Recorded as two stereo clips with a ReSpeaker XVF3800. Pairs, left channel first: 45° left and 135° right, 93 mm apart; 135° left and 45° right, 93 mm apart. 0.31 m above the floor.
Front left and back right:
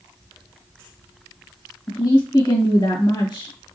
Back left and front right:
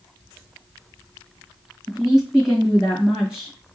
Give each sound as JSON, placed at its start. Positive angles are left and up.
{"t": 1.9, "sound": "a woman speaking", "azimuth_deg": 35, "distance_m": 1.6}